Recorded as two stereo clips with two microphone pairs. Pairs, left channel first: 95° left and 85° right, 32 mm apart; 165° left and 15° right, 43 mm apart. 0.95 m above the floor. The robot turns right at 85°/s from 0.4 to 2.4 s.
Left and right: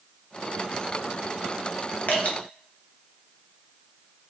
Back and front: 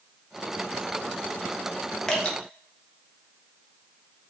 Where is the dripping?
90° left, 0.6 m; by 2.4 s 110° left, 0.6 m.